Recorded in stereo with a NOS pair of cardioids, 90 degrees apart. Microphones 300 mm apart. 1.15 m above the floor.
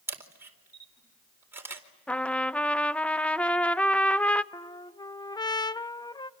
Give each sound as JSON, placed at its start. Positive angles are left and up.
{"t": 0.1, "sound": "a camera shutter", "azimuth_deg": -10, "distance_m": 4.0}
{"t": 2.1, "sound": "a trumpet", "azimuth_deg": 5, "distance_m": 0.5}
{"t": 4.5, "sound": "a trumpet", "azimuth_deg": 15, "distance_m": 0.7}